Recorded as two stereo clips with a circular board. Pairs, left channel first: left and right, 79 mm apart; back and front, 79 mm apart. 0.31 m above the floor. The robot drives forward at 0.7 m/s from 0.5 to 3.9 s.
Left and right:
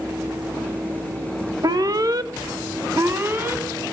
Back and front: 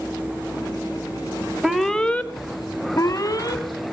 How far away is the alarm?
About 0.9 m.